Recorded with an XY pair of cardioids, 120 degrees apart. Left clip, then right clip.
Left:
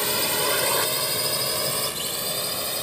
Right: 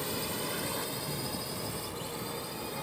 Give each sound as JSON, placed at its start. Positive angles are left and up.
{"t": 0.0, "sound": "a drone", "azimuth_deg": 70}